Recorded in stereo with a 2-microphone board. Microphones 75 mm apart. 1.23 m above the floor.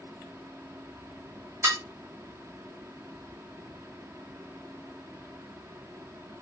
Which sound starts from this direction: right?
Dishes clattering, at 1.6 s.